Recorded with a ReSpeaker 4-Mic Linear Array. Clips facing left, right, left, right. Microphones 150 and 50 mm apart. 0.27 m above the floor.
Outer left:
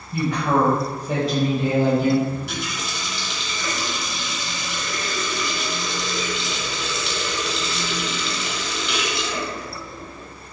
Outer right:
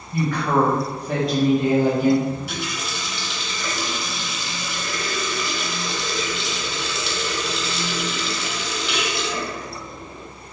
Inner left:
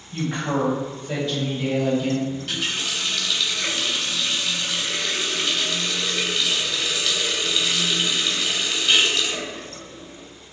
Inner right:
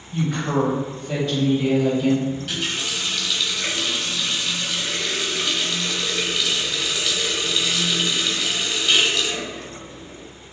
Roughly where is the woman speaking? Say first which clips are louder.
Even, inner right 2 dB; left.